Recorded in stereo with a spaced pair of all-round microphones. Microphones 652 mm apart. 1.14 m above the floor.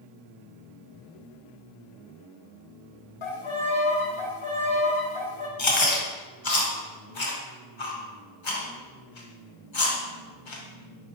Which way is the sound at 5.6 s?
45° left (ahead or behind).